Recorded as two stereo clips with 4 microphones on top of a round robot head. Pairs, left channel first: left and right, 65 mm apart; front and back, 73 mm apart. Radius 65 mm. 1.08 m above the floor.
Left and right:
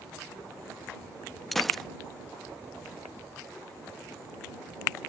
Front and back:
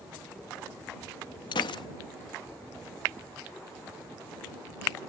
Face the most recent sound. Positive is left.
turn(degrees=5)